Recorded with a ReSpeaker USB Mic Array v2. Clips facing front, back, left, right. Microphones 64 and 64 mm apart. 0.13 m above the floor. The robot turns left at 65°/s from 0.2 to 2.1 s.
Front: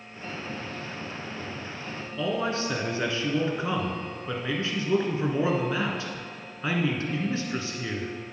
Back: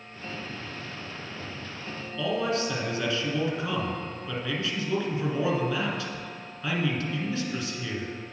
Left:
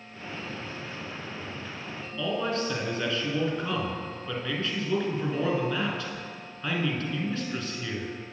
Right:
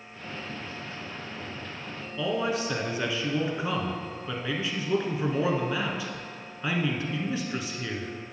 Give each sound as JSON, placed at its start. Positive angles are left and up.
{"t": 2.2, "sound": "a man speaking", "azimuth_deg": -25, "distance_m": 1.5}